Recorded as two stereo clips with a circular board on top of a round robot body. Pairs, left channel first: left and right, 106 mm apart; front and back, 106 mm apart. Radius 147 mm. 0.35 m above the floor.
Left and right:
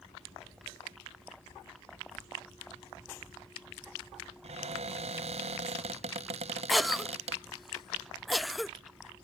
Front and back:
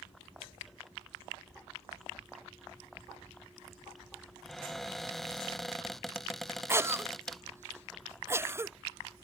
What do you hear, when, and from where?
4.4 s a cupboard door: 90° right
6.7 s a cough: straight behind